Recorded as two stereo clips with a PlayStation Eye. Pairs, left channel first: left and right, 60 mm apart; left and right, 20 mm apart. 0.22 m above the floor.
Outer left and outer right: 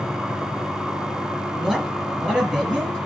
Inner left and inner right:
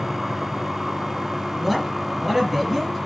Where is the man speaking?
20° right (ahead or behind), 4.5 m.